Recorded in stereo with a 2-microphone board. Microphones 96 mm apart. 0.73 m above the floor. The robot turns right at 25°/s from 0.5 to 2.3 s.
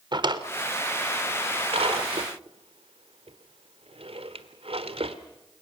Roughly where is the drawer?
Right.